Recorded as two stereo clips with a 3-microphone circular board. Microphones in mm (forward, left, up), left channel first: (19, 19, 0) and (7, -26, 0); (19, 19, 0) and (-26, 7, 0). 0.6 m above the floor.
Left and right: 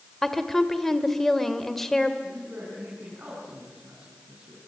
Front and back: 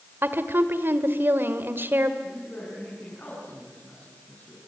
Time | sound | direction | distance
0.2 | a woman speaking | 160° left | 2 m
2.2 | a man speaking | 45° right | 6.5 m